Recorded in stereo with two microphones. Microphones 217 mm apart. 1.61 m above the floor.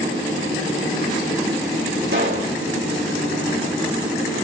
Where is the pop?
65° right (ahead or behind), 3.5 m.